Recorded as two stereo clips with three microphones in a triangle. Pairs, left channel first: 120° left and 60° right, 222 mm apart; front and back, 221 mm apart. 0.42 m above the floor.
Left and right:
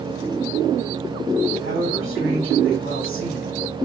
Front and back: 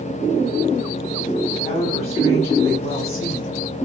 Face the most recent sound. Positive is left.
turn(degrees=-55)